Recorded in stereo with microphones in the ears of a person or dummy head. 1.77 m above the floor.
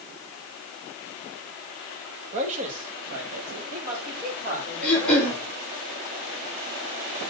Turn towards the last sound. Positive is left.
turn(degrees=5)  # may be behind; listen again after turning